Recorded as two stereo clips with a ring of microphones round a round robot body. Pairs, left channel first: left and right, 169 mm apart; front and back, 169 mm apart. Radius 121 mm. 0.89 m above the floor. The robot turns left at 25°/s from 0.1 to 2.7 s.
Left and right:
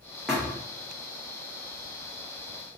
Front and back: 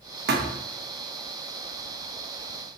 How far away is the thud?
About 0.6 m.